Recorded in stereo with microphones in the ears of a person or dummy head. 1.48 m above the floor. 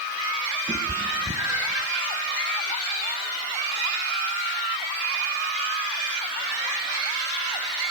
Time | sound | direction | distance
0.7 | a cat meowing | 15° right (ahead or behind) | 2.5 m